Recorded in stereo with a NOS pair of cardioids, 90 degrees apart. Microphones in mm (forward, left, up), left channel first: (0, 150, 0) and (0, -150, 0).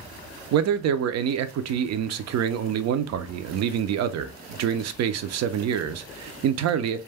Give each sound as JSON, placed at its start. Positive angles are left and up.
{"t": 0.5, "sound": "a man speaking", "azimuth_deg": -60, "distance_m": 0.5}